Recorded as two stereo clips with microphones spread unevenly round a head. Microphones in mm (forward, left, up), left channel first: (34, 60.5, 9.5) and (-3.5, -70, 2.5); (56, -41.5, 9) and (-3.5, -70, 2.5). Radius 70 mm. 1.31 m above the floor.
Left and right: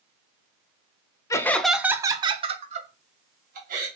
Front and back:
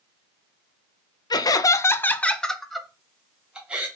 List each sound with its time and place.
1.3 s laughter: 5° left, 0.6 m; by 3.9 s 85° right, 1.4 m